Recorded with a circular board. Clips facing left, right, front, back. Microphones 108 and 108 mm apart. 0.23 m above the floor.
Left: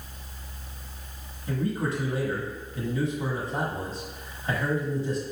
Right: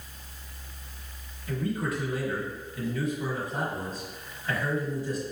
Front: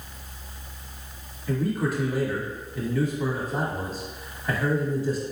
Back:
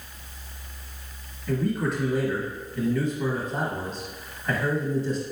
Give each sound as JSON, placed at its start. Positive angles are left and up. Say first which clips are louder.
{"t": 1.5, "sound": "a man speaking", "louder": "left 2 dB, even", "azimuth_deg": 80, "distance_m": 1.2}